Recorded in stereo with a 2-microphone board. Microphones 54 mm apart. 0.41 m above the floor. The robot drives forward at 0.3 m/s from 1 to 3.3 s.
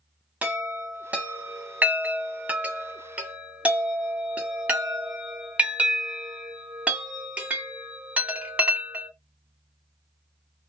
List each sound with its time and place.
0.4 s a chime: 30° right (ahead or behind), 0.8 m